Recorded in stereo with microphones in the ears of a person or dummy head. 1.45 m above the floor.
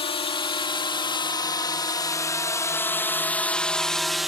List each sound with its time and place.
0.0 s a drone: 30° left (ahead or behind); by 4.3 s 5° right (ahead or behind)